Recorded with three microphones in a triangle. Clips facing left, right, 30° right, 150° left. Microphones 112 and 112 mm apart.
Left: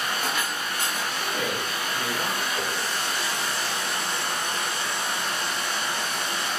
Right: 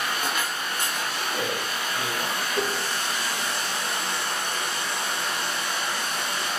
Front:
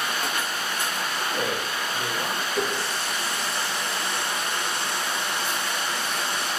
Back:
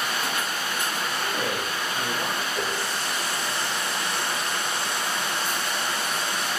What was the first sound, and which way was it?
A man speaking, 10° right.